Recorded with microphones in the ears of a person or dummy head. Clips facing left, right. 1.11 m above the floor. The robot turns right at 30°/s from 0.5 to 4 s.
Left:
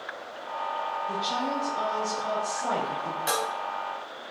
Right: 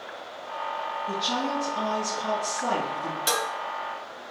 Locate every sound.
1.1 s a woman speaking: 95° right, 1.8 m; by 3.2 s 35° right, 1.8 m
3.3 s dishes clattering: 25° right (ahead or behind), 1.5 m; by 3.5 s 20° right (ahead or behind), 1.5 m